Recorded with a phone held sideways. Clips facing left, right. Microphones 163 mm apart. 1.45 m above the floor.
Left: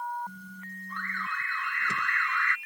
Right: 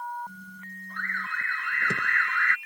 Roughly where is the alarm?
Right.